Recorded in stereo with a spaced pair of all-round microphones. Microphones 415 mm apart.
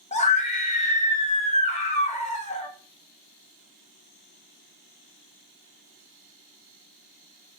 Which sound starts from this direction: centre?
A scream, at 0.1 s.